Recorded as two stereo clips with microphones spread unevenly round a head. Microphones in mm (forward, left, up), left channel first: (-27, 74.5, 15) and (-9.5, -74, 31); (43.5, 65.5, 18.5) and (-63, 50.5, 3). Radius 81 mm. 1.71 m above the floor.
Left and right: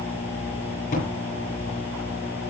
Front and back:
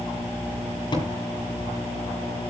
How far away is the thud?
About 9.5 m.